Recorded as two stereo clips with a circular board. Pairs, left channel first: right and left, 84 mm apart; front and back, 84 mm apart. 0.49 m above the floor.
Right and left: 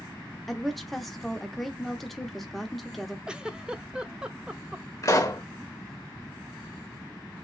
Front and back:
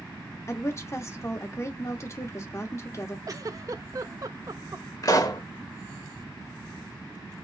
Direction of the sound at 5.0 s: 40° right.